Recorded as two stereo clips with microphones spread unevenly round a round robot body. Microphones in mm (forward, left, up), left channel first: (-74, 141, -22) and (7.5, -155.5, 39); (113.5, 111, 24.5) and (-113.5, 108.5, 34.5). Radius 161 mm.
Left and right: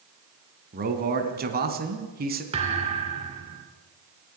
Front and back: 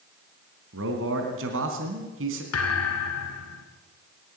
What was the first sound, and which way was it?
A man speaking, 135° right.